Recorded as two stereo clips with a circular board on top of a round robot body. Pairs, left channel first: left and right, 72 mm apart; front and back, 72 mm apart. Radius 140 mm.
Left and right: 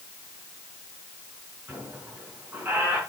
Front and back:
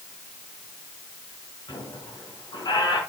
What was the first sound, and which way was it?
A squeak, 25° right.